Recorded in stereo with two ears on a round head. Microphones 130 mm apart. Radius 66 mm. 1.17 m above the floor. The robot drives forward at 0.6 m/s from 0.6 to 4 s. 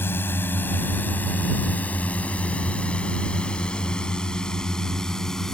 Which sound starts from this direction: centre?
A drone, at 0.0 s.